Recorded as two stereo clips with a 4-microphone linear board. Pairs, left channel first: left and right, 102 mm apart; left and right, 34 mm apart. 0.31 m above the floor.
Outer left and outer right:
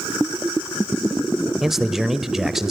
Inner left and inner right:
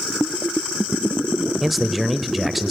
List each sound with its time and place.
1.6 s a man speaking: 5° right (ahead or behind), 0.9 m